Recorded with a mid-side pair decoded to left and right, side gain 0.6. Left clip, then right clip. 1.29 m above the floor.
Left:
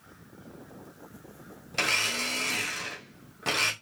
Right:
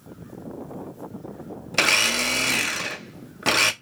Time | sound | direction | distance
1.7 | a blender | 45° right | 0.6 m